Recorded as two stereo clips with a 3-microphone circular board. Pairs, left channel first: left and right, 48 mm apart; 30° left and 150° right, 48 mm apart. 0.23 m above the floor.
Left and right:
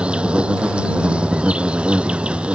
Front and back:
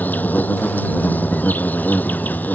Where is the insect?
25° right.